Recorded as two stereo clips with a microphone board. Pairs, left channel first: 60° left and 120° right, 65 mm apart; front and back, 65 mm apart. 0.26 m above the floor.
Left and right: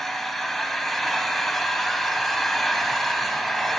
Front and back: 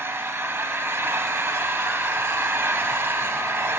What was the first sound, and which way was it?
An engine running, 145° left.